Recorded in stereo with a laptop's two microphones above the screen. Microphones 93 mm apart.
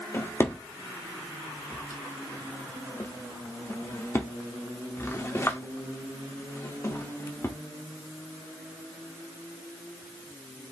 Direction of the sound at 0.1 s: 25° left (ahead or behind).